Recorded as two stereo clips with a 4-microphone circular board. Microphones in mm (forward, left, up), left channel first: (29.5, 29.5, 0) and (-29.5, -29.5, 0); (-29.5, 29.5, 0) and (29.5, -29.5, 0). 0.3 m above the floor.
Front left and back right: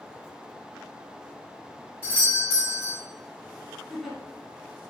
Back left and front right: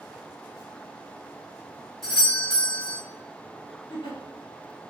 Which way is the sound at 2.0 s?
140° right.